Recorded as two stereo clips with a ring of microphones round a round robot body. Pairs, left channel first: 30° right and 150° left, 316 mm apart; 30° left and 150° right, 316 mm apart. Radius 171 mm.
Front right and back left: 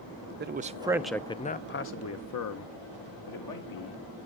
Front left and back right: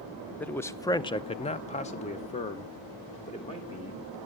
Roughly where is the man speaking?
Behind left.